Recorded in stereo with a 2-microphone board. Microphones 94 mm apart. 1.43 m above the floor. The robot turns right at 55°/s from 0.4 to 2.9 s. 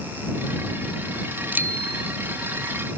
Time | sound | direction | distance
1.5 | a bicycle bell | 160° right | ?